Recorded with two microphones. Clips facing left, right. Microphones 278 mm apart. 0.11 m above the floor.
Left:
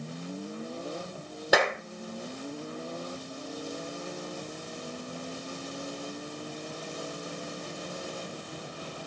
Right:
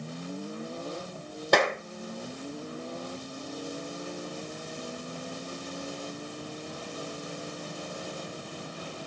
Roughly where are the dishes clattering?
I don't hear dishes clattering.